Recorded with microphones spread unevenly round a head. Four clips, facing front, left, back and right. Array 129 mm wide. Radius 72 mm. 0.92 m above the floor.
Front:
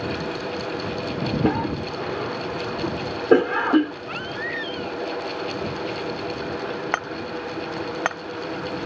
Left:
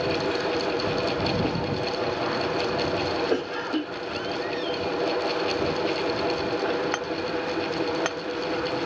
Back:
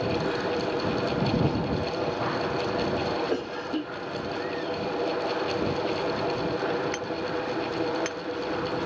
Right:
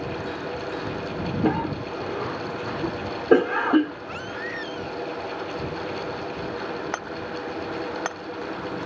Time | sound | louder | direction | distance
1.4 | a cough | right 2 dB, front 4 dB | 35° right | ?
4.1 | a baby crying | left 4 dB, even | 20° right | ?
6.9 | hammering | left 3 dB, front 2 dB | 5° right | ?